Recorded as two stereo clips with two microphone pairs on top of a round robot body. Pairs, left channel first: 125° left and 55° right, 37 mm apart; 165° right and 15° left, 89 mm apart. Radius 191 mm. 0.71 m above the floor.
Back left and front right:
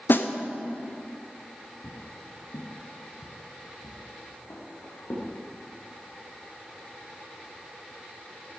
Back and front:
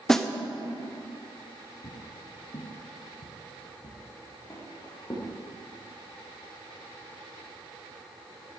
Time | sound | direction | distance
0.1 | a snare drum | 115° left | 0.9 m
1.8 | footsteps | 150° left | 1.5 m